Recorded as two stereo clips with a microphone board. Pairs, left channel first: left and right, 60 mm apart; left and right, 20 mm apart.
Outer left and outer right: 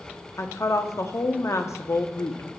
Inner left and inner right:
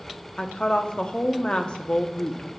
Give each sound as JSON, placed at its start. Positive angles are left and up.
{"t": 0.4, "sound": "a woman speaking", "side_deg": 55, "distance_m": 0.6}